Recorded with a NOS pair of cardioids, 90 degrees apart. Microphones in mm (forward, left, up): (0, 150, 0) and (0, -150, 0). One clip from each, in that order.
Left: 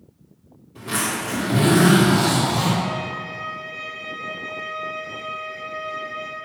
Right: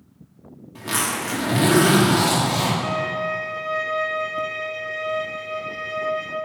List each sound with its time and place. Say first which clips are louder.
0.8 s a zipper: right 1 dB; 45° right, 2.0 m
2.8 s a violin: right 4 dB; 40° right, 1.1 m